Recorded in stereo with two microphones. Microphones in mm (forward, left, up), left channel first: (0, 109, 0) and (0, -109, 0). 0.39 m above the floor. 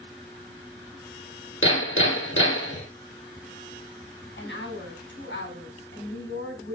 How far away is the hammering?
About 3 m.